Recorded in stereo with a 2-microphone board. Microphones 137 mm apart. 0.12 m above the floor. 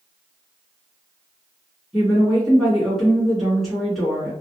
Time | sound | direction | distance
1.9 | a woman speaking | centre (ahead or behind) | 1.5 m